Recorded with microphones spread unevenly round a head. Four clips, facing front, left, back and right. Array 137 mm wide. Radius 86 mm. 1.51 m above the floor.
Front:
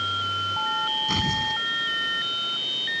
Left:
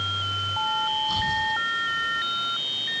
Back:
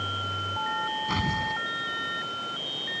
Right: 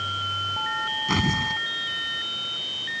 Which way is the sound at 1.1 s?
85° right.